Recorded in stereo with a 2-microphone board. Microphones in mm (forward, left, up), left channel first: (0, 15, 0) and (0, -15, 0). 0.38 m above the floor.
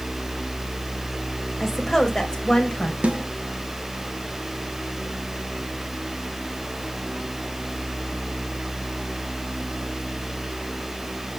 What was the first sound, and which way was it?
A woman speaking, 5° left (ahead or behind).